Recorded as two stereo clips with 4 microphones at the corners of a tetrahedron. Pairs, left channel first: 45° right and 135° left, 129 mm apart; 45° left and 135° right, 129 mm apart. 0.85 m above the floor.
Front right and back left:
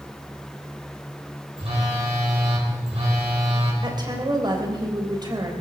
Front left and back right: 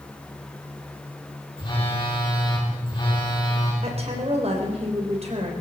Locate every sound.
1.6 s a phone buzzing: 95° left, 4 m
3.8 s a woman speaking: 170° right, 3.5 m